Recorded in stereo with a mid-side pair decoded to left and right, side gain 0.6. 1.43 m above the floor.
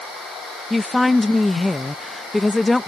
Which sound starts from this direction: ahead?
A woman speaking, at 0.7 s.